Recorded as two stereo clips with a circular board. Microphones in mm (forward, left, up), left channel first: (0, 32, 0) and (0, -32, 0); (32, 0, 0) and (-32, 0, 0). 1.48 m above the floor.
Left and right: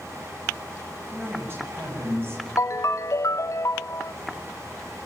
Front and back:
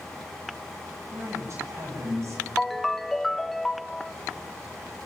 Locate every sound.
1.1 s a man speaking: 140° right, 9 m
2.6 s a ringtone: 85° left, 0.6 m